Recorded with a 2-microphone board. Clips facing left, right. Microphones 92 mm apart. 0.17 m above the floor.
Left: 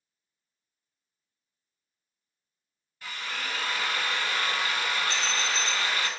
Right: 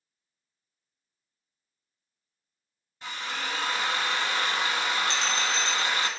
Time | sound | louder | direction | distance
3.0 | a drill | right 2 dB | 25° right (ahead or behind) | 0.8 m
5.1 | a bell | right 2 dB | 25° right (ahead or behind) | 2.5 m